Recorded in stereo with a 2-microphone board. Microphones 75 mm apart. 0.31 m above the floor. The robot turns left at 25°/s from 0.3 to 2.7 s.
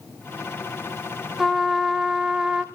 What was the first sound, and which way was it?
A trumpet, centre (ahead or behind).